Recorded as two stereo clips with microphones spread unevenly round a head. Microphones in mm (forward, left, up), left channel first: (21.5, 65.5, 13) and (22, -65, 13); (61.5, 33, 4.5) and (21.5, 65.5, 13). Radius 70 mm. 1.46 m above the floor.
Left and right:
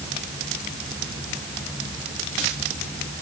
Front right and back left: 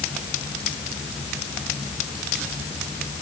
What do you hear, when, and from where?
Only background noise.